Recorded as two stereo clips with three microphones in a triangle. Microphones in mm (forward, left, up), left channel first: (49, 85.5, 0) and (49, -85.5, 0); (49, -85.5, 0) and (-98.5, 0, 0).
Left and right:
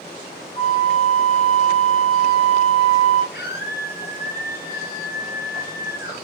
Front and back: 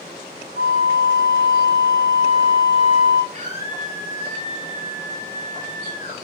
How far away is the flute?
About 4 m.